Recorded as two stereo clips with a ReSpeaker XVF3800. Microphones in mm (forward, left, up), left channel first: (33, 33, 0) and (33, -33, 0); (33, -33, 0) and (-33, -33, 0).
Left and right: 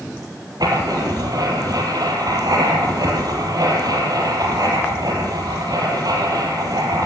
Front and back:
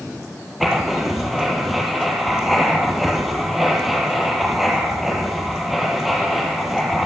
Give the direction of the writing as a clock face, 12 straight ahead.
3 o'clock.